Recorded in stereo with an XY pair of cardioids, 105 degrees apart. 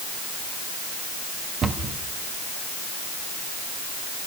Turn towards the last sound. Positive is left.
turn(degrees=-50)